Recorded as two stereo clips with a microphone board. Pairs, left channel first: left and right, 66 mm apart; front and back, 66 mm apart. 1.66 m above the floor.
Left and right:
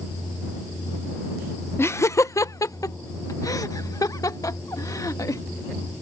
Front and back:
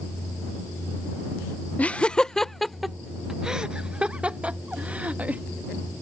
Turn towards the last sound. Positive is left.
turn(degrees=115)